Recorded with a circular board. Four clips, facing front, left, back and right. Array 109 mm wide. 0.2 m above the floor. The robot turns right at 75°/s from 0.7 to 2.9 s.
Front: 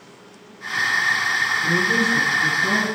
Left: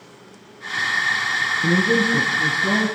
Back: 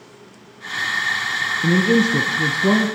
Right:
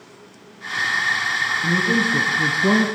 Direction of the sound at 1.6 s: 150° left.